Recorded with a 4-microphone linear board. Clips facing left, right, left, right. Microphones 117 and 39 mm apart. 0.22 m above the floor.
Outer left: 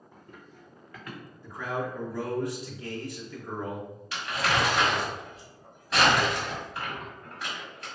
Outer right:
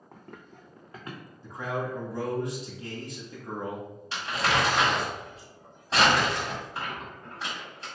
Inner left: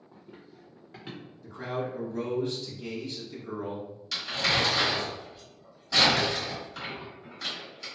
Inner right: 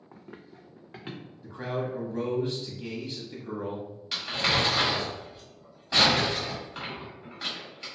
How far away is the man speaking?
About 1.1 m.